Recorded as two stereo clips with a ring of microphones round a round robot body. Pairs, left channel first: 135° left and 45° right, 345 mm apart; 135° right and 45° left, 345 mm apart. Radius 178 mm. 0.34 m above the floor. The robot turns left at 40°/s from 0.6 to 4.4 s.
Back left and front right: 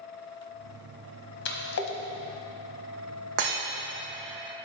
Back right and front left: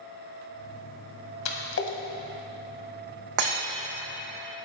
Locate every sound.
1.4 s a splash: 170° right, 1.6 m; by 2.0 s 170° left, 1.6 m
3.4 s breaking glass: 5° left, 3.5 m; by 3.6 s 5° right, 3.5 m